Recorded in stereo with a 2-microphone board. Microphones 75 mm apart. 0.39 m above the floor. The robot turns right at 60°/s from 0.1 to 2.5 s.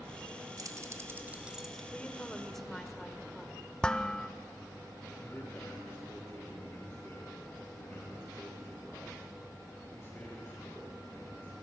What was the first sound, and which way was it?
Keys jangling, 55° right (ahead or behind).